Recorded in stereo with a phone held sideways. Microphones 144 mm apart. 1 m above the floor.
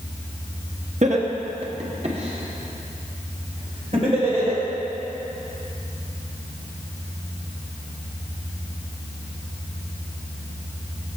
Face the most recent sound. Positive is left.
turn(degrees=-45)  # may be behind; listen again after turning